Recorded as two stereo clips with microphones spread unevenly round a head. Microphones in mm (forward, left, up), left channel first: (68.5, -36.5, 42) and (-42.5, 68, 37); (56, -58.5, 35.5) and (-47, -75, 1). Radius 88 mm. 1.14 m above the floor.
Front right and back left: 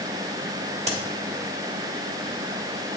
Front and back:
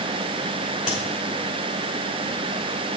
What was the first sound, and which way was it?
A crack, 90° left.